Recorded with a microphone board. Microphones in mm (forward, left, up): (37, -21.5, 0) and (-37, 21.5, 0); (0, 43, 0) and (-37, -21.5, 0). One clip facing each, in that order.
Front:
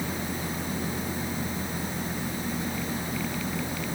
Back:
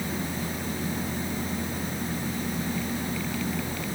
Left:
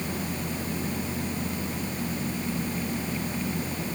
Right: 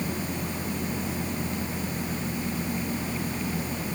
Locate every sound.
Only background noise.